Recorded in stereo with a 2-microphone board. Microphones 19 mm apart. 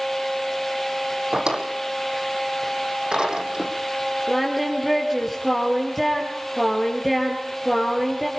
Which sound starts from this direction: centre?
Singing, at 4.3 s.